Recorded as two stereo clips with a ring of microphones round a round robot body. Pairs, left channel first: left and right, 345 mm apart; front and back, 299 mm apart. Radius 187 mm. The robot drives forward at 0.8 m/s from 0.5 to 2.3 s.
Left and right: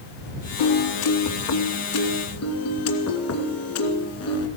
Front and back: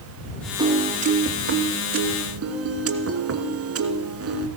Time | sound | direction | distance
0.6 | a piano | 100° left | 1.5 m